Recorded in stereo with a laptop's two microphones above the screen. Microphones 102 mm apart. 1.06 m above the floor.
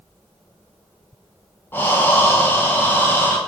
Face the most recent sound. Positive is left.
turn(degrees=20)  # may be behind; listen again after turning